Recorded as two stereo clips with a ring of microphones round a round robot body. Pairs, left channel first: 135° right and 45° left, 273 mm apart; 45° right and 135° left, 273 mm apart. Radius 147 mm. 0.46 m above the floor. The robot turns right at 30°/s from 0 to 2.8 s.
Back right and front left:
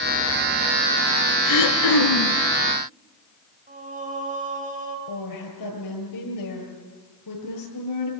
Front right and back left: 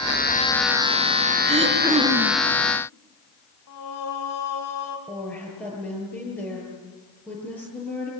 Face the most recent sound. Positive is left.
turn(degrees=-130)